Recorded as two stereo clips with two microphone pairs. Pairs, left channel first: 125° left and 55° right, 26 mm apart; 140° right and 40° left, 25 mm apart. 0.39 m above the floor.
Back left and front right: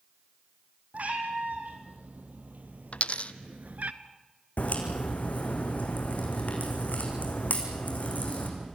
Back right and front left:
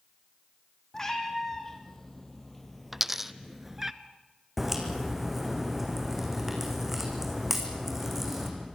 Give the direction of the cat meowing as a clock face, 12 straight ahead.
2 o'clock.